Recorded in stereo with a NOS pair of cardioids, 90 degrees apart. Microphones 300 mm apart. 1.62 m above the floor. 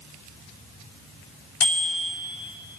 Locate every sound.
1.6 s a bicycle bell: 55° left, 4.5 m